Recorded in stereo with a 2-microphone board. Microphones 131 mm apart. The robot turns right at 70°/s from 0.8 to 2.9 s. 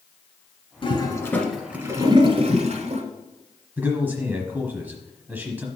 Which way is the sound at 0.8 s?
45° left (ahead or behind).